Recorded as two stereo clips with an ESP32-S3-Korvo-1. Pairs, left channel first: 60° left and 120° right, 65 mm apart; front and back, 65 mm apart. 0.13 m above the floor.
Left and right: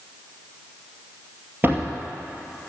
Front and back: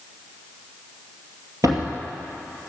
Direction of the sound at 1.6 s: 170° right.